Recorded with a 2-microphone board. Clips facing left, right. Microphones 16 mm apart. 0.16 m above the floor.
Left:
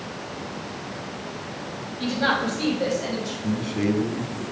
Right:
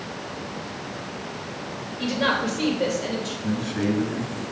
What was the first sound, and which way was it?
A woman speaking, 60° right (ahead or behind).